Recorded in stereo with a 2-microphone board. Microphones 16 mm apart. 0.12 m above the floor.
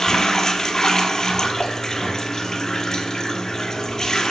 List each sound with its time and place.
0.0 s running water: 35° left (ahead or behind), 1.0 m